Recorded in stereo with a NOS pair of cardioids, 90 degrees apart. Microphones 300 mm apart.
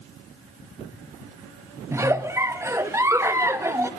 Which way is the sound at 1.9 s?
10° right.